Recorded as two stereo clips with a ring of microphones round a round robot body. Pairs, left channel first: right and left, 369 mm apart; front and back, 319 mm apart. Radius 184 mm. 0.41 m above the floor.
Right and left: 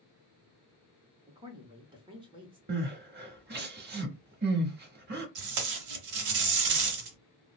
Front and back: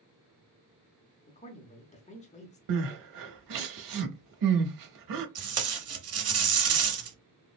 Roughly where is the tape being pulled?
Behind left.